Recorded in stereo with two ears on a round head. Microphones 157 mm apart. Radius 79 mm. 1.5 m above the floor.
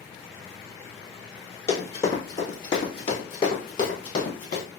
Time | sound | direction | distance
1.7 | running footsteps | 20° left (ahead or behind) | 1.9 m